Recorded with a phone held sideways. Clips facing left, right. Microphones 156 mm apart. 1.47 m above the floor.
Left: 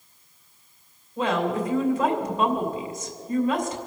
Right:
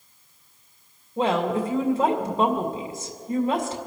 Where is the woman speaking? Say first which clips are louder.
Right 2 dB; 30° right (ahead or behind), 2.5 m.